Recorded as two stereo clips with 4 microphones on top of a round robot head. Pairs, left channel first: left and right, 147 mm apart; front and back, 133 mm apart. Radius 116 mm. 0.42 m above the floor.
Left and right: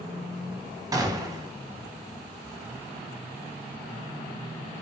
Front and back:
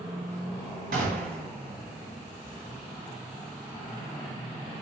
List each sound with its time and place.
0.9 s a gunshot: 155° right, 0.5 m